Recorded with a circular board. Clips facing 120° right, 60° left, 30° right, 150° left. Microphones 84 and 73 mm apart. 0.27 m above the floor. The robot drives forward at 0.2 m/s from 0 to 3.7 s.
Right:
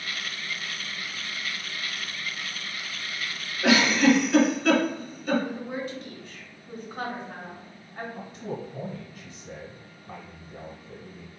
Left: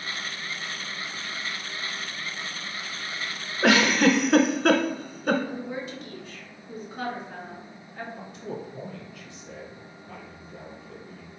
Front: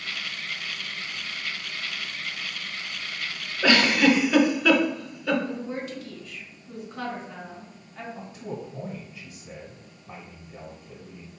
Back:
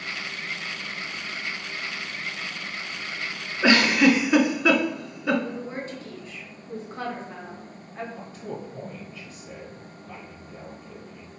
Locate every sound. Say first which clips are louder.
3.6 s a giggle: even, back 1 dB; 80° left, 0.6 m; by 5.4 s 85° left, 0.6 m
5.4 s a woman speaking: right 1 dB, front 1 dB; 165° right, 2.0 m
8.2 s a man speaking: right 2 dB, even; 95° right, 1.3 m